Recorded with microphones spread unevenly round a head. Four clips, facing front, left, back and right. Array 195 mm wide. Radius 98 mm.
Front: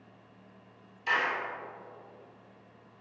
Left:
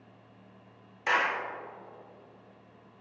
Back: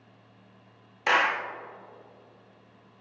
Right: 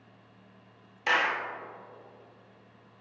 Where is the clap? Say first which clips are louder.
Even, back 6 dB; 160° right, 1.3 m.